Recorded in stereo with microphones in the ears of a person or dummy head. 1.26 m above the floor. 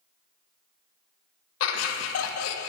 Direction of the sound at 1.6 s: 85° left.